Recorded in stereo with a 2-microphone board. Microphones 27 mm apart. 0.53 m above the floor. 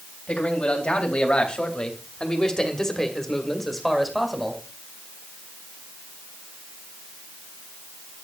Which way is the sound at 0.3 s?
60° left (ahead or behind).